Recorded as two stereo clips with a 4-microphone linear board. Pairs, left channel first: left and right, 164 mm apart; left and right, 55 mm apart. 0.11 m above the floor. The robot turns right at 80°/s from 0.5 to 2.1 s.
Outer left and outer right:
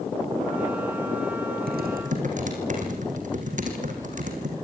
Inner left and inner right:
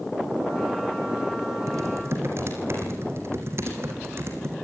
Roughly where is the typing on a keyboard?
Right.